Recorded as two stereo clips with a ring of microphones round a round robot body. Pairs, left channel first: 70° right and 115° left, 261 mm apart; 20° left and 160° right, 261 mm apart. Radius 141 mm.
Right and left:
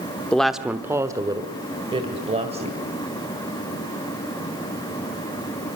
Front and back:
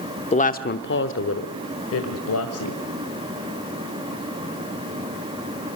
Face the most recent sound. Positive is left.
turn(degrees=45)